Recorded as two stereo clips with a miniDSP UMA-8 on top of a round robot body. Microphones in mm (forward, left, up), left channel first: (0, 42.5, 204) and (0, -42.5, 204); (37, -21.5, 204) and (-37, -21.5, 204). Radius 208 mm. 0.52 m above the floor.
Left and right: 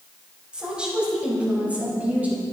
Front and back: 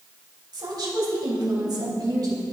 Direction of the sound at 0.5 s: 165° right.